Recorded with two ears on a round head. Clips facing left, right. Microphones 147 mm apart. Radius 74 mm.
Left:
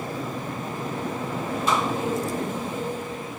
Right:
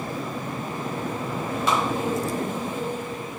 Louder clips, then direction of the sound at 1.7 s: Even; 55° right (ahead or behind).